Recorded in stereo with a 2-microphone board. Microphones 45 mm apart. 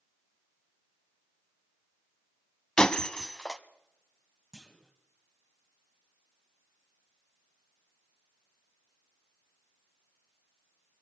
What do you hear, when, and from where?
2.8 s breaking glass: 20° left (ahead or behind), 0.6 m
4.5 s a clunk: 5° left (ahead or behind), 1.6 m